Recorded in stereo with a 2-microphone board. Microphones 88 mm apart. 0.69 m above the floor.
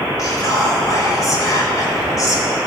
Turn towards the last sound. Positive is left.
turn(degrees=40)  # may be behind; listen again after turning